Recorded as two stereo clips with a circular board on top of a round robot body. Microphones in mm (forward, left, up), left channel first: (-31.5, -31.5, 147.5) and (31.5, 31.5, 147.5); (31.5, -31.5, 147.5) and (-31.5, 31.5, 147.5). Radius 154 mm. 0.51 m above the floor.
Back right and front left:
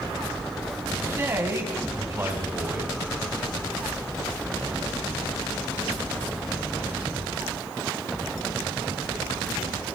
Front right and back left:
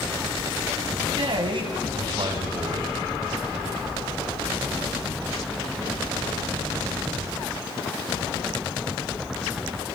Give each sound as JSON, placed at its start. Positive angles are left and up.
{"t": 1.1, "sound": "a man speaking", "azimuth_deg": 105, "distance_m": 5.0}